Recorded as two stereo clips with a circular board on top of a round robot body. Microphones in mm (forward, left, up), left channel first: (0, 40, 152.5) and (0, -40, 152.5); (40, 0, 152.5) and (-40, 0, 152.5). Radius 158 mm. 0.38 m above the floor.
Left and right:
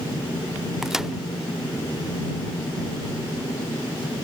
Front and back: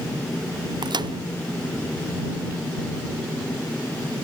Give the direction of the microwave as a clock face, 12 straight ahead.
6 o'clock.